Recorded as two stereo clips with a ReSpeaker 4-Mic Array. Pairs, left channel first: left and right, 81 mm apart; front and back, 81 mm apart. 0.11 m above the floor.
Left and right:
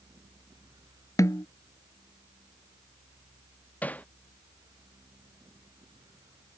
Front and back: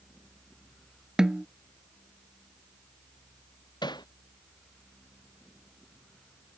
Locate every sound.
1.2 s a snare drum: 100° left
3.8 s hammering: 20° left